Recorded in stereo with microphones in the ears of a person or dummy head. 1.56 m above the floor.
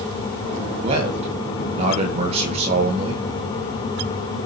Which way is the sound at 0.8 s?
40° right (ahead or behind).